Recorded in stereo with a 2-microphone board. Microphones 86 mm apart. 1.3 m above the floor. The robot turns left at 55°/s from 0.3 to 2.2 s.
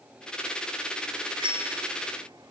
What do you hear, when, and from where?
1.4 s a bicycle bell: 80° right; by 2.5 s 55° right (ahead or behind)